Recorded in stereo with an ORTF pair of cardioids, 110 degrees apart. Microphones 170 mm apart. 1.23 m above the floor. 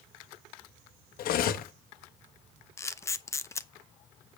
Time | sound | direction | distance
1.2 | cutlery clinking | 65° left | 1.0 m
2.8 | a camera shutter | 15° left | 0.7 m